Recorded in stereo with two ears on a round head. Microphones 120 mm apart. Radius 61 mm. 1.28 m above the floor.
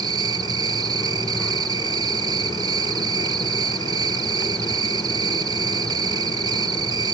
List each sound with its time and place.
0.0 s an insect: 30° right (ahead or behind), 0.9 m